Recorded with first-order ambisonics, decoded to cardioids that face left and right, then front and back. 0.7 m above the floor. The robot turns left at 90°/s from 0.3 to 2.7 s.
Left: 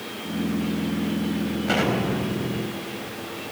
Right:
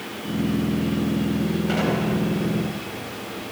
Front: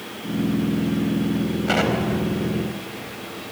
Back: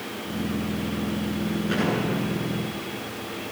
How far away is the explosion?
About 4 m.